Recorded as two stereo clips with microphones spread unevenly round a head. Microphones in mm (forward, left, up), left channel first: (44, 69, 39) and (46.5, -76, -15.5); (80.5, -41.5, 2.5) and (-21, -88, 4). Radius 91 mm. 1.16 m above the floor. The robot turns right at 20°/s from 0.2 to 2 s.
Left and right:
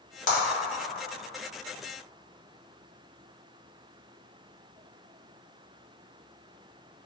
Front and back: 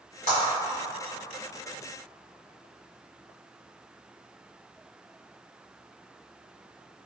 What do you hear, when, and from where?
0.3 s a clap: 60° left, 1.1 m